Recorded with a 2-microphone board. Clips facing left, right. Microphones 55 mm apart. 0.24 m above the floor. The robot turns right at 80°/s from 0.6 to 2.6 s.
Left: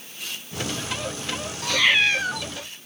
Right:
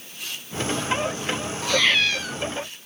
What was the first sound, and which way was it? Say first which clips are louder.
A cat meowing: left 1 dB; 10° right.